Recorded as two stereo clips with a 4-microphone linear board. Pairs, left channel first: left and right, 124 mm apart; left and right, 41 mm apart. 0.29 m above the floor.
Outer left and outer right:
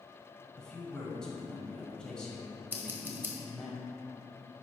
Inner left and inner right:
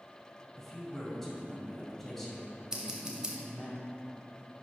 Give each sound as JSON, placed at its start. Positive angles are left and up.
{"t": 0.6, "sound": "a man speaking", "side_deg": 5, "distance_m": 1.7}
{"t": 2.7, "sound": "scissors", "side_deg": -15, "distance_m": 1.0}